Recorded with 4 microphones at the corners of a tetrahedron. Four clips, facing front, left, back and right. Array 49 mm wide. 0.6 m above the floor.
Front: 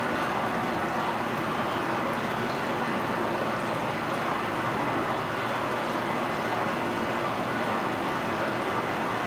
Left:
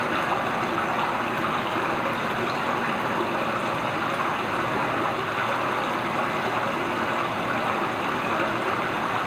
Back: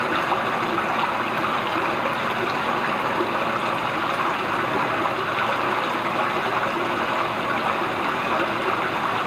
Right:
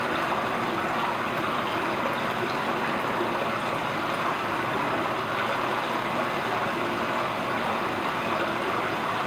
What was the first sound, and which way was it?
Running water, 165° left.